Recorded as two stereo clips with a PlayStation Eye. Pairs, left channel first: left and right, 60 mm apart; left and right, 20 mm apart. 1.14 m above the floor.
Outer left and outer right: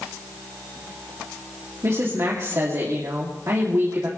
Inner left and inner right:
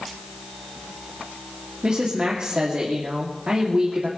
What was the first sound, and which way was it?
A woman speaking, 55° right (ahead or behind).